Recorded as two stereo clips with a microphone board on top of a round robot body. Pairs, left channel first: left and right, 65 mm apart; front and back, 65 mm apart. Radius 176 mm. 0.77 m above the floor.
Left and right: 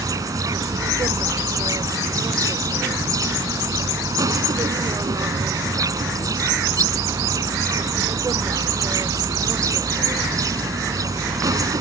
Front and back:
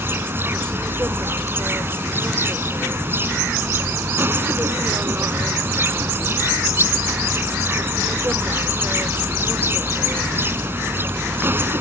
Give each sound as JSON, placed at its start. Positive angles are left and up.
{"t": 0.0, "sound": "an insect", "azimuth_deg": -125}